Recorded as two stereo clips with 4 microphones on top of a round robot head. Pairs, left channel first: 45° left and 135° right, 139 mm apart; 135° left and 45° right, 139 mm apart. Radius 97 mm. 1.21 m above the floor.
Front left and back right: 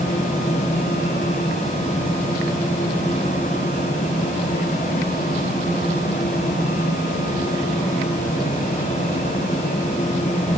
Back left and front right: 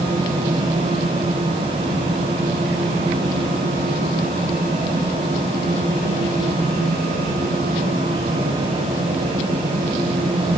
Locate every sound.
Only background noise.